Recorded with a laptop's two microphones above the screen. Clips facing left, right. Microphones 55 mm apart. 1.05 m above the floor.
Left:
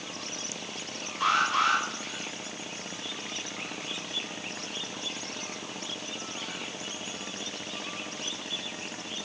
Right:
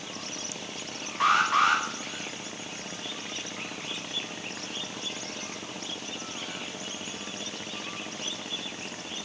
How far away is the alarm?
About 1.9 m.